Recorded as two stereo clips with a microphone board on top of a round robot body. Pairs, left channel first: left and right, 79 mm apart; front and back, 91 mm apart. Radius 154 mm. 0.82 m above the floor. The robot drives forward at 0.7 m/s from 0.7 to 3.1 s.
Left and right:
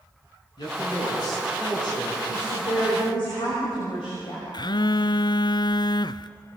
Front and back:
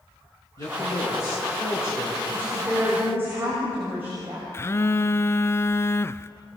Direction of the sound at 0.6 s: 55° left.